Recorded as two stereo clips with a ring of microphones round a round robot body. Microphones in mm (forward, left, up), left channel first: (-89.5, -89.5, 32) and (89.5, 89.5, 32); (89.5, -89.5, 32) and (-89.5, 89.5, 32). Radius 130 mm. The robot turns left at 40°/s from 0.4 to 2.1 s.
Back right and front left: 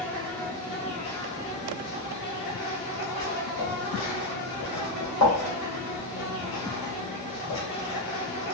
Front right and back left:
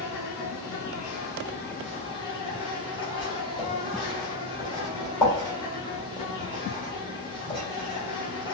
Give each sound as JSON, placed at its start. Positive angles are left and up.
{"t": 0.0, "sound": "an insect", "azimuth_deg": -50, "distance_m": 1.3}
{"t": 3.2, "sound": "writing", "azimuth_deg": -115, "distance_m": 2.0}